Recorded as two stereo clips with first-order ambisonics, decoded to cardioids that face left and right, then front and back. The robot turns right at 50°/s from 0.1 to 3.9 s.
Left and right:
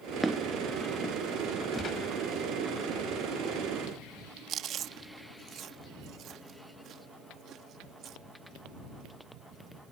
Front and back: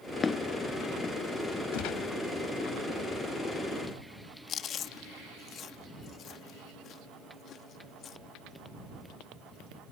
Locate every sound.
0.2 s footsteps: 15° right; by 1.2 s 30° left
1.7 s a gunshot: 20° left; by 2.1 s 40° left
4.5 s chewing: 45° right